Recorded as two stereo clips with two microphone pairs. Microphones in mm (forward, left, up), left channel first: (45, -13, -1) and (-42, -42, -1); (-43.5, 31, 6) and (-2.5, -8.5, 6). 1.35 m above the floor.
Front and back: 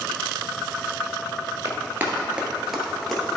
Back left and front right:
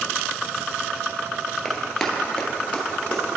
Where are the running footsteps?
155° right, 1.4 m; by 3.2 s 100° left, 1.7 m.